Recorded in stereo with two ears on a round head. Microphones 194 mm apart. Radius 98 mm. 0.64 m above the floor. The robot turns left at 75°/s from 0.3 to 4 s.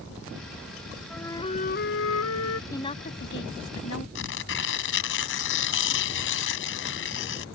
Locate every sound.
1.1 s a flute: straight behind; by 2.6 s 65° left
2.7 s a woman speaking: 165° left; by 4.0 s 70° left
4.2 s tearing paper: 65° left (ahead or behind)